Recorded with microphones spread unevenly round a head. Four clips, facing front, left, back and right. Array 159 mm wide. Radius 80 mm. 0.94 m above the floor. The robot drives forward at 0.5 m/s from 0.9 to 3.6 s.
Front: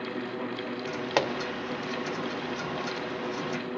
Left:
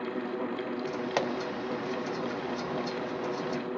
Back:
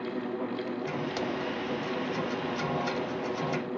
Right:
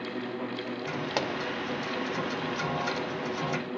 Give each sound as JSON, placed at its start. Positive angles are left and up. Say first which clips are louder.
{"t": 1.2, "sound": "a pop", "louder": "left 1 dB, front 9 dB", "azimuth_deg": -20, "distance_m": 2.5}